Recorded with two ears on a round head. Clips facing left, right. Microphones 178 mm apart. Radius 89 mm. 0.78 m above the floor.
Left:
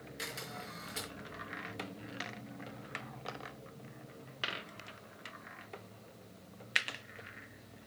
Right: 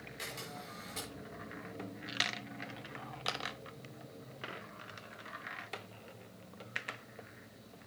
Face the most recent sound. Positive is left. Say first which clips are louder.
# left 1 dB
turn(degrees=10)  # may be behind; listen again after turning